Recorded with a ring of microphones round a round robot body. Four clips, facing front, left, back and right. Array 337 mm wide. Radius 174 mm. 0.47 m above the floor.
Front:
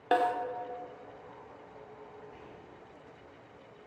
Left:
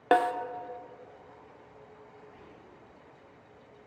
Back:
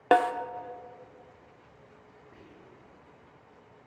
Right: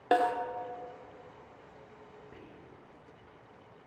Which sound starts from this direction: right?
Whispering, at 2.3 s.